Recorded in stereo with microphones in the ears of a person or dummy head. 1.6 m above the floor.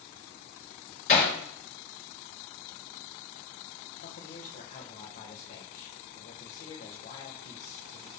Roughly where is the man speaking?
Left.